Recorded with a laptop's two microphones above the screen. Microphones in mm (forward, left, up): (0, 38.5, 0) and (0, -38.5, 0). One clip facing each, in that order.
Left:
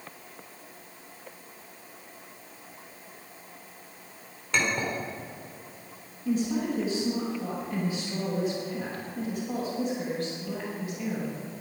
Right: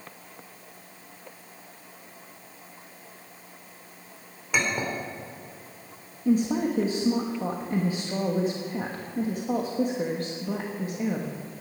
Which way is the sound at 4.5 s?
10° right (ahead or behind).